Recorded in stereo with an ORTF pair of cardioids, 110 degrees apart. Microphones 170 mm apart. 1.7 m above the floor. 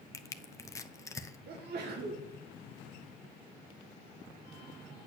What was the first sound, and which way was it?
Crushing, 15° left.